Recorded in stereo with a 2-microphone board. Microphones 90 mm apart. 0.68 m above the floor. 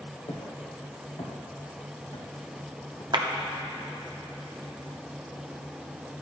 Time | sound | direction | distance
0.3 | footsteps | 75° left (ahead or behind) | 2.5 m
3.1 | a clap | 55° right (ahead or behind) | 0.7 m